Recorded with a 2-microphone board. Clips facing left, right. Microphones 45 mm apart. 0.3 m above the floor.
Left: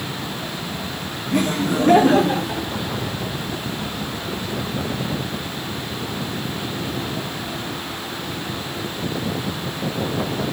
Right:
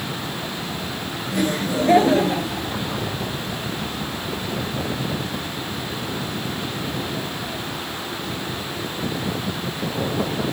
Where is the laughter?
60° left (ahead or behind), 3.5 m; by 2.7 s 65° left (ahead or behind), 5.5 m.